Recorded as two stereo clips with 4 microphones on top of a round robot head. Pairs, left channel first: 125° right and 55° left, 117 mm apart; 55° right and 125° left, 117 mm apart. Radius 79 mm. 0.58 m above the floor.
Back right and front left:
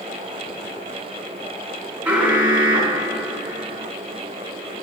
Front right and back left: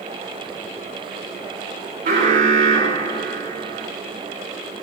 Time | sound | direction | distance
2.0 | an alarm | 130° left | 7 m